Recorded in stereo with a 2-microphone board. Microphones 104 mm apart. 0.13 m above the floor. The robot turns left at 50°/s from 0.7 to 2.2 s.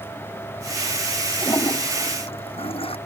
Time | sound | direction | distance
1.4 | a toilet flushing | 150° left | ?